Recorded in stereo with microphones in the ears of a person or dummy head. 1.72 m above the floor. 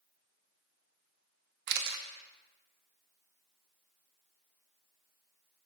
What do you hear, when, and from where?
1.7 s a camera shutter: 55° right (ahead or behind), 0.8 m